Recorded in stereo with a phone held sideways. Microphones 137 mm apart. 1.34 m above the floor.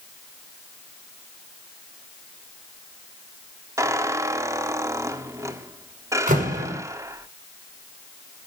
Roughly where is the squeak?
Right.